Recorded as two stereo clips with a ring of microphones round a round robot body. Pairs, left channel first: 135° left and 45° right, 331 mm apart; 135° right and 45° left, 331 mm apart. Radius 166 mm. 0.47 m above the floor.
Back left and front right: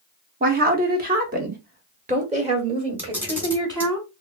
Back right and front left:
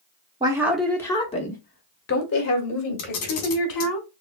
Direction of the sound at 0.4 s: 20° right.